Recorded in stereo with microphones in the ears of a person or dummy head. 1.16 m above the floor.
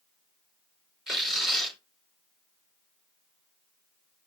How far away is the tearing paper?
About 4.5 m.